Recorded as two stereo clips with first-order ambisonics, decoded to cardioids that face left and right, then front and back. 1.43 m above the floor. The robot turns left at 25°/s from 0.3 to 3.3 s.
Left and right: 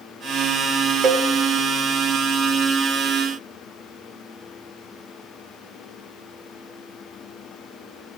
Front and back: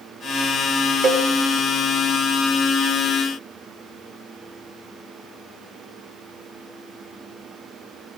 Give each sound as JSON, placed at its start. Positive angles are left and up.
{"t": 1.0, "sound": "a cowbell", "azimuth_deg": -135, "distance_m": 0.7}